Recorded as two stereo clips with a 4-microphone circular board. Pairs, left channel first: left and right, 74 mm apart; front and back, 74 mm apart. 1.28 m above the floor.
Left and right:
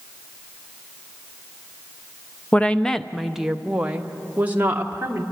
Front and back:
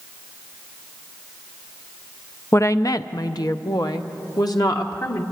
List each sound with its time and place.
2.5 s a woman speaking: 30° left, 0.6 m; by 5.2 s 30° right, 1.6 m